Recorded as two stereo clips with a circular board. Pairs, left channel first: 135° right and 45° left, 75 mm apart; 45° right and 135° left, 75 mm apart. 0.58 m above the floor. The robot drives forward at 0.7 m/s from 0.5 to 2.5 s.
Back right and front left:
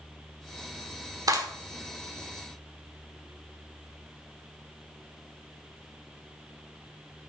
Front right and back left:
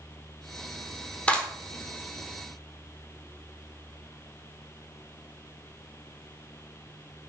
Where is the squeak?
No squeak in this recording.